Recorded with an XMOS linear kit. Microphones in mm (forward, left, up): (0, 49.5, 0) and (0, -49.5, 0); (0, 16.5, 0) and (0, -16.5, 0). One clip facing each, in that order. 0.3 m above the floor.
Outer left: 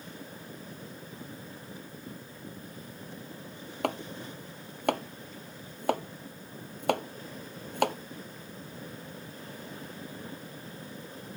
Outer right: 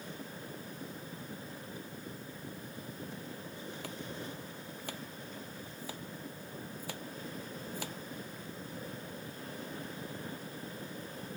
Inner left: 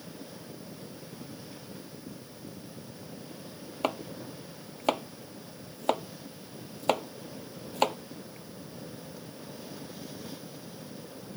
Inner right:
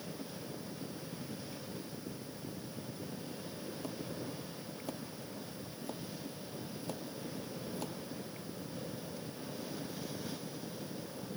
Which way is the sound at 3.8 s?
65° left (ahead or behind).